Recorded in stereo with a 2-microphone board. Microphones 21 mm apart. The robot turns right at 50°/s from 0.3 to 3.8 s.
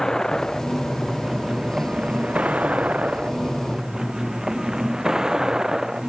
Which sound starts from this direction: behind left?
A vehicle, at 0.0 s.